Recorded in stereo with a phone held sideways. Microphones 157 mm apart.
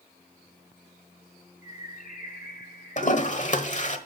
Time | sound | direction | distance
1.6 | a bird | 60° left (ahead or behind) | 1.9 m
3.0 | a toilet flushing | 50° left (ahead or behind) | 1.1 m